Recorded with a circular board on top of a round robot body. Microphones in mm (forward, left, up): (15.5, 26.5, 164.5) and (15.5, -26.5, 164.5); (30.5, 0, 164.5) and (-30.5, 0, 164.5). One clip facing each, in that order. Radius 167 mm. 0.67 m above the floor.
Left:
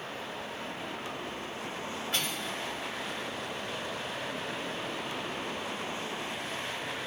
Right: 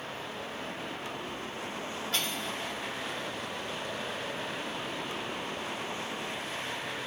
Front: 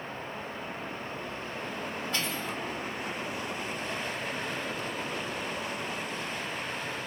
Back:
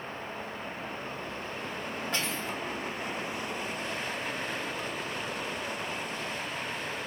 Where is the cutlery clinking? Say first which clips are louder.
Right 1 dB, back 1 dB; 160° left, 2.5 m.